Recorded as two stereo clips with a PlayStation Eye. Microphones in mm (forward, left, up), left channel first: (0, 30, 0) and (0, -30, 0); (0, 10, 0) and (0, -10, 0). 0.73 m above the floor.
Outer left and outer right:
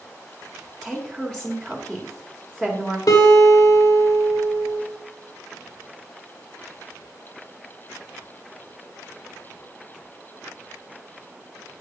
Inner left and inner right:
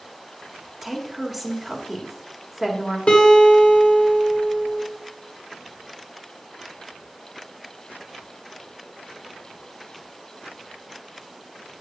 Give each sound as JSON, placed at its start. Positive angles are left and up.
{"t": 0.8, "sound": "a woman speaking", "side_deg": 10, "distance_m": 1.8}
{"t": 3.1, "sound": "a guitar", "side_deg": 75, "distance_m": 1.7}